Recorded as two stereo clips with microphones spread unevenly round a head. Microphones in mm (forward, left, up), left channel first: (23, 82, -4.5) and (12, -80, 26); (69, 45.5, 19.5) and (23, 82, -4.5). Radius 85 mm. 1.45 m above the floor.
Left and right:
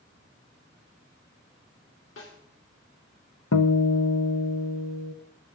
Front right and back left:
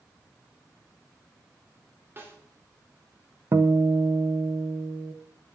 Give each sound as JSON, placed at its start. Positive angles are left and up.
{"t": 2.2, "sound": "a snare drum", "azimuth_deg": 90, "distance_m": 3.5}
{"t": 3.5, "sound": "a guitar", "azimuth_deg": 100, "distance_m": 1.0}